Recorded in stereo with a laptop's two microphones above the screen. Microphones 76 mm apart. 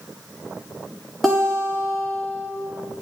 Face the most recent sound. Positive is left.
turn(degrees=0)  # may be behind; listen again after turning